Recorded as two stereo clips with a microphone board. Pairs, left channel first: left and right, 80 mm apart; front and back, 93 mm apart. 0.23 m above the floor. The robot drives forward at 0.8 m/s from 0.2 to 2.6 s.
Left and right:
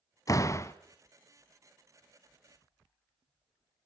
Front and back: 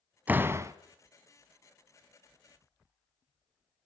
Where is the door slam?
115° left, 1.0 m; by 0.7 s 135° left, 1.2 m.